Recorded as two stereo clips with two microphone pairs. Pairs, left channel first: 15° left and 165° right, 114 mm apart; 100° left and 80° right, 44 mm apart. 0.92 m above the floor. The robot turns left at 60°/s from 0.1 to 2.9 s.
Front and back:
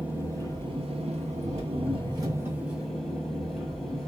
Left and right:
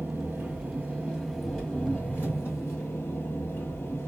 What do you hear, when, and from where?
0.0 s an engine running: 95° right, 1.4 m; by 4.1 s 100° left, 1.4 m